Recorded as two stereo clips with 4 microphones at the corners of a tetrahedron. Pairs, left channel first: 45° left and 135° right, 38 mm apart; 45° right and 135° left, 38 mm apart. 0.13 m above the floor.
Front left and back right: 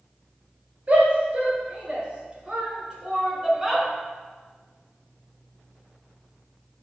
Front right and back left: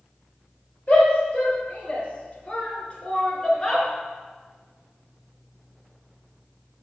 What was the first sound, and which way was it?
A shout, 90° right.